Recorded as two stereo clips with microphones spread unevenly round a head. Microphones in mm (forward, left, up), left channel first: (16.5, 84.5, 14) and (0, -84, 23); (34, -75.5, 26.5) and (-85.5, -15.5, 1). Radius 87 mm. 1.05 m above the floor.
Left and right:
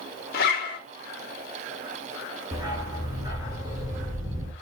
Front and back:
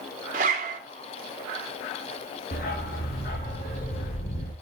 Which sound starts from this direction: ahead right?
A dog barking, at 2.5 s.